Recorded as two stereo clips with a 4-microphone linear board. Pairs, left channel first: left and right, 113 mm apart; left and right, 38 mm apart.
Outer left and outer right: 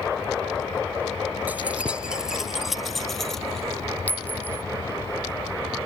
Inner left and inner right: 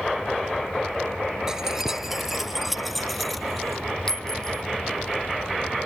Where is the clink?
15° left (ahead or behind).